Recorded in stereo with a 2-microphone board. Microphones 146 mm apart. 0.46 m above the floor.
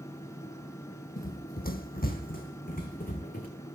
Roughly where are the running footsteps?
Left.